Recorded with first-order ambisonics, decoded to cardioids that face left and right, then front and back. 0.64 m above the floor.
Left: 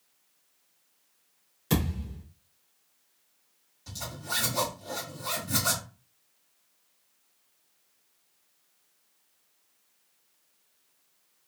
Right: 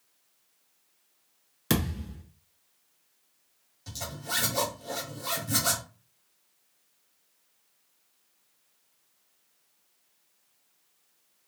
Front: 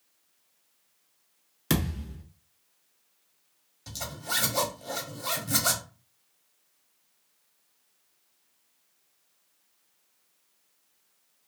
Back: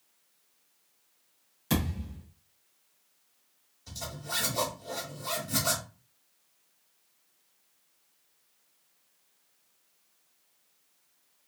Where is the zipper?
15° right, 1.5 m.